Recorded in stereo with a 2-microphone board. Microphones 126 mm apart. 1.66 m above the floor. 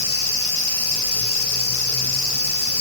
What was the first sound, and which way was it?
Only background noise.